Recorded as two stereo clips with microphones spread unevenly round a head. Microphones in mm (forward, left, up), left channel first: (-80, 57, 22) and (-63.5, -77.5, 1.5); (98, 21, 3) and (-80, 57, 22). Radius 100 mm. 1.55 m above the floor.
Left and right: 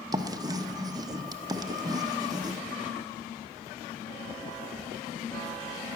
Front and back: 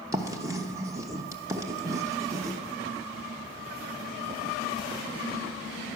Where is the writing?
140° right, 0.9 m.